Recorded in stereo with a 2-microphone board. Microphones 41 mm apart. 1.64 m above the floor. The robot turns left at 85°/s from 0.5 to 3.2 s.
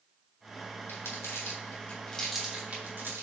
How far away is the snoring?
I don't hear snoring.